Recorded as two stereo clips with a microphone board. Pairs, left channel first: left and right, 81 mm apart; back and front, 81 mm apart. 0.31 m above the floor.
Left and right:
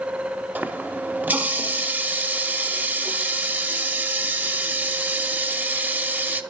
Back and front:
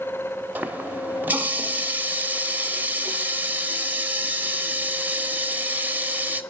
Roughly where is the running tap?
Ahead right.